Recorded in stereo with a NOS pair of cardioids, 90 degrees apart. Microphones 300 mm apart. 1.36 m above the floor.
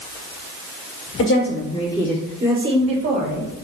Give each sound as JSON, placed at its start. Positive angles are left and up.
{"t": 1.2, "sound": "a woman speaking", "azimuth_deg": 60, "distance_m": 1.3}